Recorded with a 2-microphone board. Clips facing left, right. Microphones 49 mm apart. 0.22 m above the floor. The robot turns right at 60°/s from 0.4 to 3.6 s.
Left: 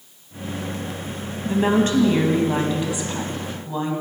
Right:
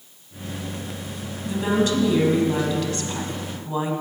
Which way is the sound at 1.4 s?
70° left.